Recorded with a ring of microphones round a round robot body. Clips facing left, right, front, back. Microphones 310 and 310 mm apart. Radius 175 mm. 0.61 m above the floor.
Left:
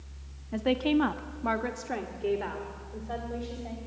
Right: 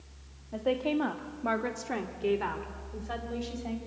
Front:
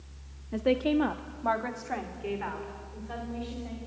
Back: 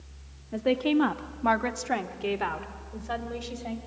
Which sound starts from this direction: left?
A woman speaking, at 0.5 s.